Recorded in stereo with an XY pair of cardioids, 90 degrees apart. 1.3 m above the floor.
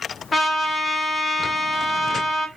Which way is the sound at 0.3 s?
35° left.